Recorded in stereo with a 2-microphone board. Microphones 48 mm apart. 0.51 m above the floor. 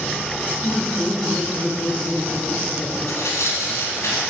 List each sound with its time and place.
0.6 s laughter: 55° left (ahead or behind), 1.9 m
3.1 s tearing paper: 85° left, 3.5 m